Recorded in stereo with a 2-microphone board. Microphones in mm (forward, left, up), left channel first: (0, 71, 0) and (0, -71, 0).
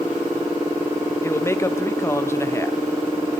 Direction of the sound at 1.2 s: 20° left (ahead or behind).